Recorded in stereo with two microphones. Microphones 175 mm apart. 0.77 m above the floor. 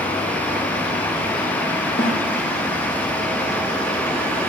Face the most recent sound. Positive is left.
turn(degrees=80)